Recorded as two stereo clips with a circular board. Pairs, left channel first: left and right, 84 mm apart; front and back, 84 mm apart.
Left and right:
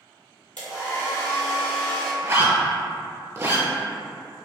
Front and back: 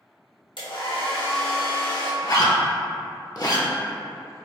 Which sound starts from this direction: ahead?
A hair dryer, at 0.6 s.